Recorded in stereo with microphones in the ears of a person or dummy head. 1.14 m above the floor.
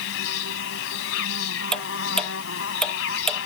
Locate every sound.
0.0 s an insect: 75° left (ahead or behind)
1.7 s ticking: 10° left (ahead or behind)